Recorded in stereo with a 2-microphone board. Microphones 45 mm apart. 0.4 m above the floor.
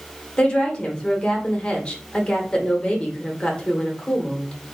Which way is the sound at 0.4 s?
25° left (ahead or behind).